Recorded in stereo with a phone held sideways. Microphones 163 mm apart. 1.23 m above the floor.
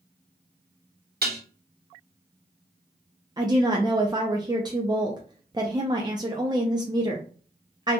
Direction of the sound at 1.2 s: 75° right (ahead or behind).